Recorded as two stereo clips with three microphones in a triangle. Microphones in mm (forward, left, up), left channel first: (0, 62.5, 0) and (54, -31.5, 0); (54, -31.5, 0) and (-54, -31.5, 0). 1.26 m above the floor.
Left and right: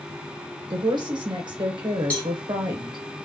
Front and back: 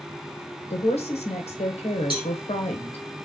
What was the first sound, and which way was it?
A woman speaking, 15° right.